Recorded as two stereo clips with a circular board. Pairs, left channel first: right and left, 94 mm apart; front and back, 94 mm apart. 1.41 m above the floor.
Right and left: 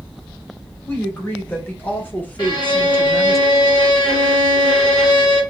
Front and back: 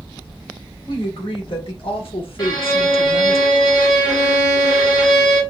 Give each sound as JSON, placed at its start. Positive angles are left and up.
{"t": 0.9, "sound": "a woman speaking", "azimuth_deg": -25, "distance_m": 1.8}
{"t": 2.4, "sound": "a violin", "azimuth_deg": -45, "distance_m": 2.5}